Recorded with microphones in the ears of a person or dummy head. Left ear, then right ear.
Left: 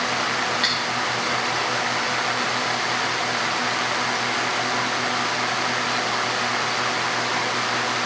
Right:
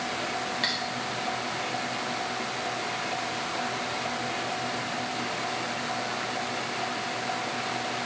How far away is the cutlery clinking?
About 2 m.